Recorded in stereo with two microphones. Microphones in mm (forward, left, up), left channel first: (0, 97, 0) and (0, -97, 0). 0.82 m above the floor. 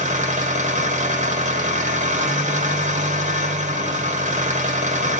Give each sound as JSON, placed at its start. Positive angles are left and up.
{"t": 0.0, "sound": "an engine running", "side_deg": -40, "distance_m": 1.5}